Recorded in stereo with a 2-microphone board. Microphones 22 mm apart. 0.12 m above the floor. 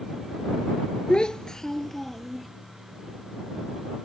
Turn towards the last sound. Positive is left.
turn(degrees=0)  # may be behind; listen again after turning